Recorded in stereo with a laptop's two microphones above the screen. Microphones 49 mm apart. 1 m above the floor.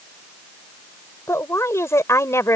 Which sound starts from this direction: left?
A woman speaking, at 1.3 s.